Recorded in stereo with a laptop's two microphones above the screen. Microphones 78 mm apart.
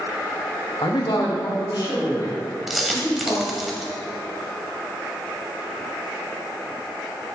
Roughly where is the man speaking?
Left.